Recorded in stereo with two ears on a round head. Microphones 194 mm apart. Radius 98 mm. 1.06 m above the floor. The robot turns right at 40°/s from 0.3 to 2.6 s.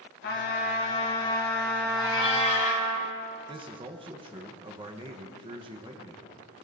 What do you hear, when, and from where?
0.2 s a trumpet: 120° left, 3 m; by 3.0 s 150° right, 3 m
2.0 s a cat meowing: 20° left (ahead or behind), 1.3 m; by 2.9 s 35° left (ahead or behind), 1.3 m
3.5 s a man speaking: 25° right (ahead or behind), 1.0 m